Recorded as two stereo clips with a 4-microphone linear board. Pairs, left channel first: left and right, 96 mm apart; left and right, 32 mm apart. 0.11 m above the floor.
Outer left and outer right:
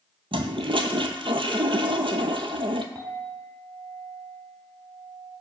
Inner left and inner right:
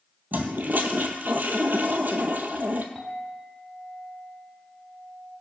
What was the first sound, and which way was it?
A toilet flushing, 70° right (ahead or behind).